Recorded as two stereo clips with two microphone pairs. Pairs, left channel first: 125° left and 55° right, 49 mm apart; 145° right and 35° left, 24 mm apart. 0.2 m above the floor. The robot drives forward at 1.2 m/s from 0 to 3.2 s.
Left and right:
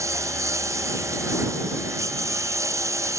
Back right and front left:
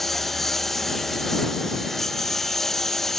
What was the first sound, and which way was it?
A lawn mower, 60° right.